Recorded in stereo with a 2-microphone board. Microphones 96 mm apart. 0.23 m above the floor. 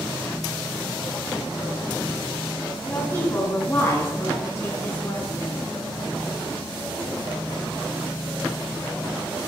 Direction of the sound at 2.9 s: 20° left (ahead or behind).